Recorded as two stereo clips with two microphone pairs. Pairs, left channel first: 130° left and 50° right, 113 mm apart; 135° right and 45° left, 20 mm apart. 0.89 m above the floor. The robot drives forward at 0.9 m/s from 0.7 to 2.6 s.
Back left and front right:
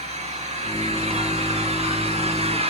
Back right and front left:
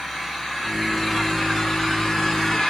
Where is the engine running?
60° right, 5.5 m; by 2.7 s 80° right, 5 m.